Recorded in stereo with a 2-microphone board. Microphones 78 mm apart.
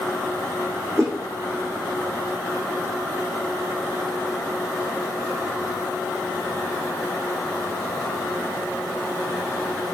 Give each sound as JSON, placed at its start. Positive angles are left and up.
{"t": 1.0, "sound": "a whoosh", "side_deg": -35, "distance_m": 3.0}